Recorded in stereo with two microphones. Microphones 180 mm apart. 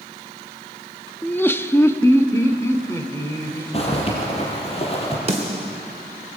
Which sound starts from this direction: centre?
Laughter, at 1.2 s.